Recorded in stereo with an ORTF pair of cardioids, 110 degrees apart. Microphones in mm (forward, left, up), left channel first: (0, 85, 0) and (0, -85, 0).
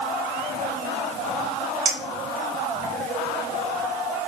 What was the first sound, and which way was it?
A clink, 50° right.